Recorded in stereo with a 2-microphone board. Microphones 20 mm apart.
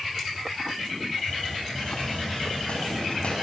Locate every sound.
1.2 s a hiss: 65° left (ahead or behind), 6 m